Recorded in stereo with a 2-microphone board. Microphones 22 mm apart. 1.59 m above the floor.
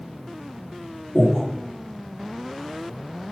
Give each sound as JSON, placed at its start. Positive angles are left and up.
{"t": 1.1, "sound": "breathing", "side_deg": 70, "distance_m": 4.5}